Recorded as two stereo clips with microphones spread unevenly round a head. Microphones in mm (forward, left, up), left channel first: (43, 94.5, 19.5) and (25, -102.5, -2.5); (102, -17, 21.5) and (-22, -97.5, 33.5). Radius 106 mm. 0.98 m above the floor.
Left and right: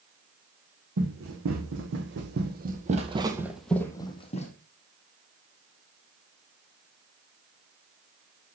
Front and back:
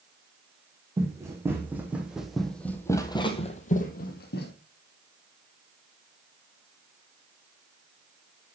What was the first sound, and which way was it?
Running footsteps, 80° right.